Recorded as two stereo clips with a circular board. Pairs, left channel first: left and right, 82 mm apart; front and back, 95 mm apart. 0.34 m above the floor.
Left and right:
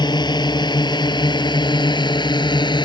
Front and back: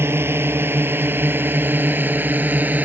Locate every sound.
0.0 s a drone: 115° left; by 2.8 s 110° left